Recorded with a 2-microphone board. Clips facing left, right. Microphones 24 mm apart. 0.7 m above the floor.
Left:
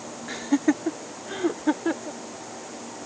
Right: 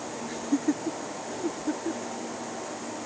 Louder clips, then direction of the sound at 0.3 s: Left 5 dB; 35° left (ahead or behind).